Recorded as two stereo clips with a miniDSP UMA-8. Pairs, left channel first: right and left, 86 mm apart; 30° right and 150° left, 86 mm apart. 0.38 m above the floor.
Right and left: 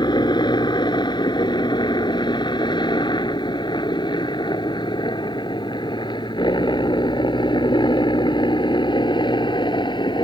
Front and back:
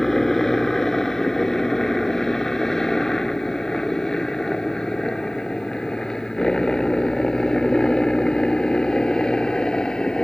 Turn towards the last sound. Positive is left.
turn(degrees=-110)